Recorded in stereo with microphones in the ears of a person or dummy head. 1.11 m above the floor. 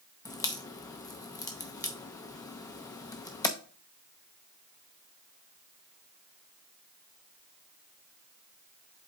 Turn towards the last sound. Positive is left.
turn(degrees=20)  # may be behind; listen again after turning